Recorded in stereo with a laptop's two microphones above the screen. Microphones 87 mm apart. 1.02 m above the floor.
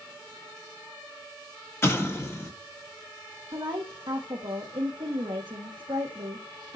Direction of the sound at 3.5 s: 65° right (ahead or behind).